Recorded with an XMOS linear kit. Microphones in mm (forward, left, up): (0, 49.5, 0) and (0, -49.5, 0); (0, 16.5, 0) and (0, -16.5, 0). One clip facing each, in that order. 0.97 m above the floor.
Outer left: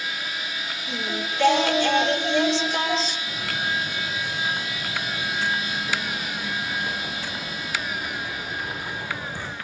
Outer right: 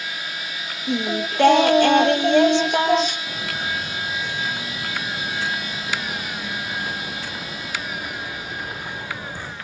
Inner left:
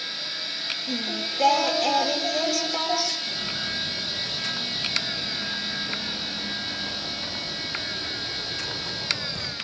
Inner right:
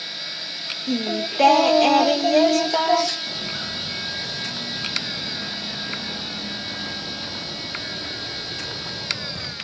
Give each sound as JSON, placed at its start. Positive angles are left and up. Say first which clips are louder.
{"t": 0.9, "sound": "singing", "louder": "outer right 7 dB, inner right 9 dB", "side_deg": -55, "distance_m": 1.1}
{"t": 3.3, "sound": "footsteps", "louder": "even, even", "side_deg": -65, "distance_m": 7.0}